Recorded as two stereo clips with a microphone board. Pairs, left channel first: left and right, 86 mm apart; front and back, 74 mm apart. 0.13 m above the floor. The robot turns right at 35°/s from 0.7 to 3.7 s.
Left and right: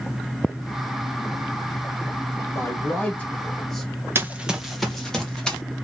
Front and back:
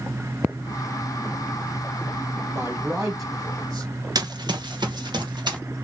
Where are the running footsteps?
150° right, 0.8 m; by 5.6 s 170° left, 2.5 m.